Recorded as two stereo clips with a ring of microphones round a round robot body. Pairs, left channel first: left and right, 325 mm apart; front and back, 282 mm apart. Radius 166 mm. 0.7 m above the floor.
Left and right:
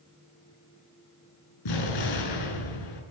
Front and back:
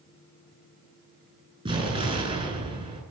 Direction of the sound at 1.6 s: 110° left.